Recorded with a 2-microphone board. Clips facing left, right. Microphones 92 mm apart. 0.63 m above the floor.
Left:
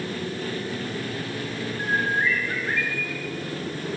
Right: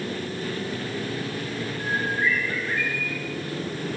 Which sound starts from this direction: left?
A bird, at 1.8 s.